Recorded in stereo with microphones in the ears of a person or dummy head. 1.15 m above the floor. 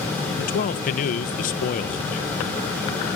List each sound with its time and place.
0.4 s a man speaking: 40° left (ahead or behind)